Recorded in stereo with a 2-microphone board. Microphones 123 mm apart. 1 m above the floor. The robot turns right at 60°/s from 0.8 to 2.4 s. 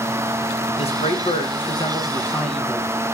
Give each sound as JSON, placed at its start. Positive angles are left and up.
{"t": 0.8, "sound": "a man speaking", "azimuth_deg": 75, "distance_m": 1.2}